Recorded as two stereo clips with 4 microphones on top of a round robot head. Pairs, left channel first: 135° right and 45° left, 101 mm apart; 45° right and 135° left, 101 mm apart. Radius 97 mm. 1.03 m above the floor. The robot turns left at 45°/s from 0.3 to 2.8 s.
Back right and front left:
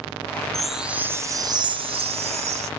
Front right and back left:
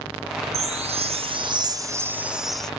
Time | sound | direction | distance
0.5 | a chime | 135° left | ?